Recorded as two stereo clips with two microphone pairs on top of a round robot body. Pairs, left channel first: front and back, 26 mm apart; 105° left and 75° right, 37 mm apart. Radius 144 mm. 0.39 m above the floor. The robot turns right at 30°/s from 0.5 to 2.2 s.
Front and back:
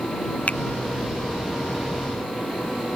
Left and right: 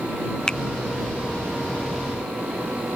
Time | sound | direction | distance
0.5 | a finger snap | 35° left | ?